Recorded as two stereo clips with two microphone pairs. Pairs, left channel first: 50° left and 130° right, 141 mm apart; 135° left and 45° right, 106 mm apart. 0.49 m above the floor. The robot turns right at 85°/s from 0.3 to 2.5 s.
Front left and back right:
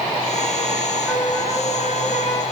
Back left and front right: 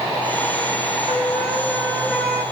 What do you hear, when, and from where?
1.1 s a flute: 50° right, 8 m; by 2.4 s 65° left, 8 m